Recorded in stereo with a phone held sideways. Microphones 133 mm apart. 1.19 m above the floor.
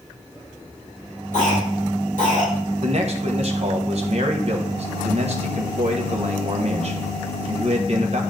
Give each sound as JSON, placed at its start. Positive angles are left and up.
{"t": 1.3, "sound": "a cough", "side_deg": 65, "distance_m": 3.5}
{"t": 2.8, "sound": "a man speaking", "side_deg": -50, "distance_m": 1.3}